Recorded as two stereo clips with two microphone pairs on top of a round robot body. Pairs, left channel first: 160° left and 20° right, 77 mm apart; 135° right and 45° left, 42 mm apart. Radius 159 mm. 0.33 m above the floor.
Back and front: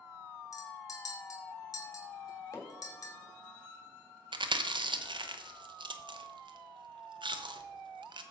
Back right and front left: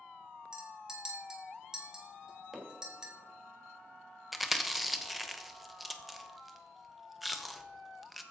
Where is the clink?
115° left, 2.5 m.